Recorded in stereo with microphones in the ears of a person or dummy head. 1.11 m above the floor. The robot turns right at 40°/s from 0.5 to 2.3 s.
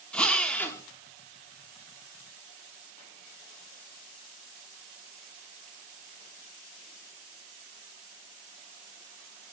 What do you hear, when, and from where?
0.1 s a drill: 5° left (ahead or behind), 1.1 m; by 0.8 s 20° left (ahead or behind), 1.1 m